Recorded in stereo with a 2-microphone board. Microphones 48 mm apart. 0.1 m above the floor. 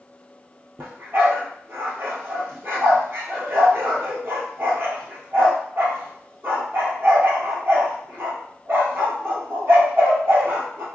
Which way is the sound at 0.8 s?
50° right (ahead or behind).